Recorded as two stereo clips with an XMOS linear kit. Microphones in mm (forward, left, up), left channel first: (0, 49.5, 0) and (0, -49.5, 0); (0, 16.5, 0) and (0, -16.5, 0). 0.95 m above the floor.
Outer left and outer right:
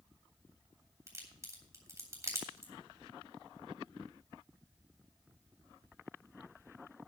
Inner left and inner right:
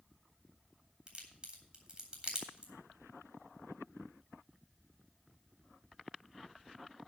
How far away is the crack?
About 3 m.